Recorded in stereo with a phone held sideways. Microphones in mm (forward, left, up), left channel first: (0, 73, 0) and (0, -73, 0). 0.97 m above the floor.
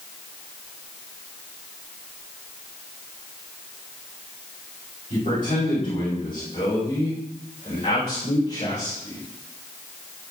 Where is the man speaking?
70° left (ahead or behind), 5 m; by 9.2 s 45° left (ahead or behind), 3.5 m.